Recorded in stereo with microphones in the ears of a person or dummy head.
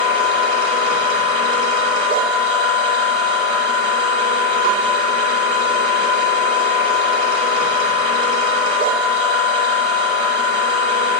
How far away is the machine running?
About 1.0 m.